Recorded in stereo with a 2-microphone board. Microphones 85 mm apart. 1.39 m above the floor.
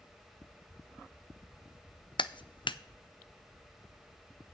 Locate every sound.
2.2 s a clap: 80° left, 0.5 m